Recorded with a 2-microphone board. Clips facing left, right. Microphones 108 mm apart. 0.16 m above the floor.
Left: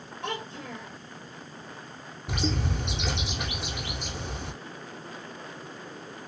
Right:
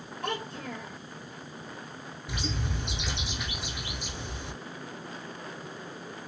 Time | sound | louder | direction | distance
0.2 | a child speaking | right 1 dB | 10° right (ahead or behind) | 1.9 m
2.3 | a bird | left 6 dB | 65° left (ahead or behind) | 0.6 m